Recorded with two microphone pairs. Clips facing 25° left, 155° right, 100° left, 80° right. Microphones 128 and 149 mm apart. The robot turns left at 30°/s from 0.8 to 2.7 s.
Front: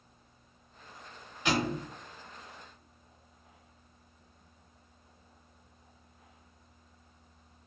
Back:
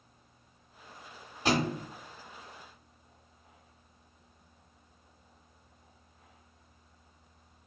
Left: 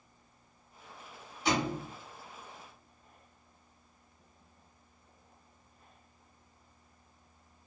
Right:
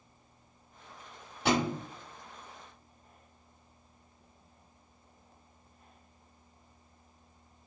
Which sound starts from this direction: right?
A thud, at 1.4 s.